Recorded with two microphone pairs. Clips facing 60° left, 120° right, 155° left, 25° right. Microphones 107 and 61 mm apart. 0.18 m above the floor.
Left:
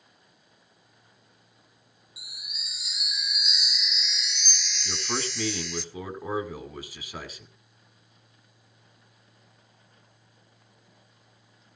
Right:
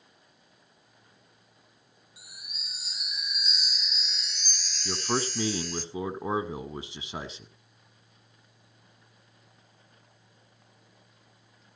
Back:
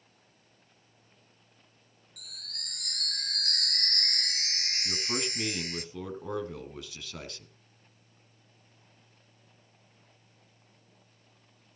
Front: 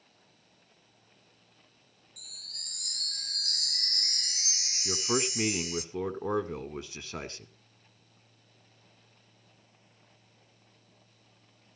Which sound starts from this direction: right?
A man speaking, at 4.8 s.